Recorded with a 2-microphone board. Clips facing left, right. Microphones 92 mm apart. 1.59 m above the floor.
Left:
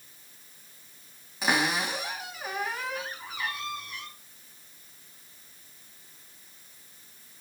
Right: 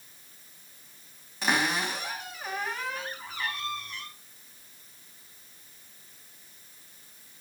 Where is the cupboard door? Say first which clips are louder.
Left 1 dB; 5° left (ahead or behind), 4 m.